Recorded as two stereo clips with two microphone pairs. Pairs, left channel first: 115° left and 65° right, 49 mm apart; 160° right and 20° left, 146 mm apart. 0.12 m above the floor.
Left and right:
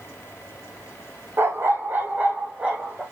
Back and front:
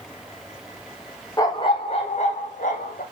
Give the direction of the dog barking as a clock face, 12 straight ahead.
3 o'clock.